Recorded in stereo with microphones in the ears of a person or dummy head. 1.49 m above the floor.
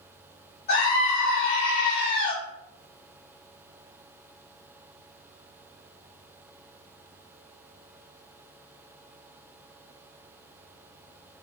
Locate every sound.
0.7 s a scream: 40° left (ahead or behind), 0.8 m